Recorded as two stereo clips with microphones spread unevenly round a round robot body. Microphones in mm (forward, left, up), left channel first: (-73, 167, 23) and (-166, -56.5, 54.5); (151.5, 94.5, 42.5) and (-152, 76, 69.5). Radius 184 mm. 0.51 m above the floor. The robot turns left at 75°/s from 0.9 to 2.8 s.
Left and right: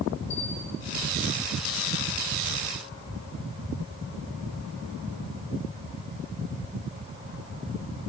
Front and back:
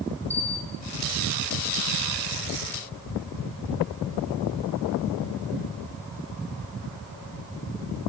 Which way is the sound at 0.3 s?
70° left.